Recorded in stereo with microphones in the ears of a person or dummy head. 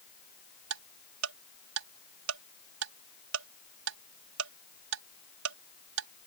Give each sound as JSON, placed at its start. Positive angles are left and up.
{"t": 0.7, "sound": "ticking", "side_deg": -80}